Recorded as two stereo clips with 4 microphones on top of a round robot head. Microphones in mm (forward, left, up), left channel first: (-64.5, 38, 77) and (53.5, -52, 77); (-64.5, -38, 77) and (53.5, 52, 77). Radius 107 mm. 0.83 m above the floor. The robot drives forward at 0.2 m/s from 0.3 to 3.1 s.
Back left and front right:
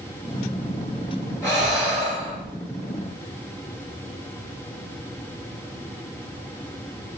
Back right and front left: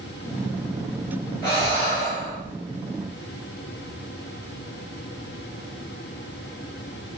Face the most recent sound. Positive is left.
turn(degrees=-150)